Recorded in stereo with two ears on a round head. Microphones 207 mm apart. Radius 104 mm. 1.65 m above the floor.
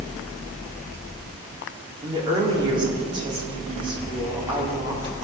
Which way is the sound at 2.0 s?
20° right (ahead or behind).